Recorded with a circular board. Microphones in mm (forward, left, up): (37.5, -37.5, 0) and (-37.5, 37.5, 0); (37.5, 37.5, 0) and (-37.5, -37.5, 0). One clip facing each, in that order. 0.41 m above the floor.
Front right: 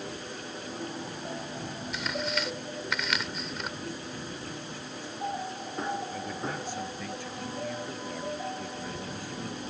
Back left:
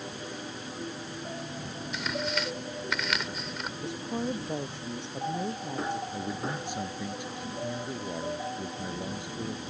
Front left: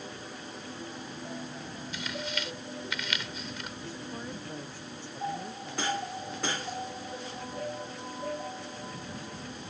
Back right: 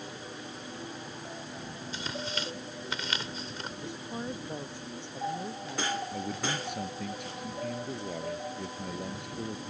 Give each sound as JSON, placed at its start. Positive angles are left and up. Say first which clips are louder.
{"t": 1.9, "sound": "tearing paper", "louder": "back left 1 dB, even", "azimuth_deg": -135}
{"t": 3.8, "sound": "a woman speaking", "louder": "back left 6 dB, back right 4 dB", "azimuth_deg": 155}
{"t": 6.1, "sound": "a man speaking", "louder": "back left 1 dB, back right 1 dB", "azimuth_deg": -155}